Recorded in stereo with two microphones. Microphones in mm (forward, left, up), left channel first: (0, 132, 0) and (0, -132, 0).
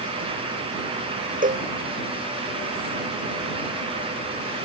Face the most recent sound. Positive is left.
turn(degrees=-30)  # may be behind; listen again after turning